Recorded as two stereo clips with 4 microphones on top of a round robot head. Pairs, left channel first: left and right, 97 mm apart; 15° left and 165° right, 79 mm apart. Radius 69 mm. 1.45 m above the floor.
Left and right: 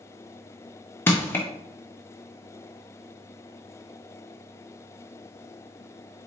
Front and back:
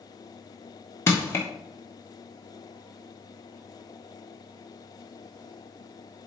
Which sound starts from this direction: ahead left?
Crushing, at 1.1 s.